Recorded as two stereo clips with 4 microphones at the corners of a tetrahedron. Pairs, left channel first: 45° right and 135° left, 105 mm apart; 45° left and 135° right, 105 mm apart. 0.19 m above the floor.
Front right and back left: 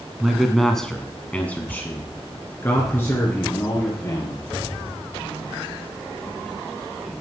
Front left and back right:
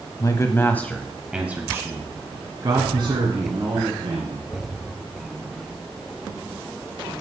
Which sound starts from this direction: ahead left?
A man speaking, at 0.2 s.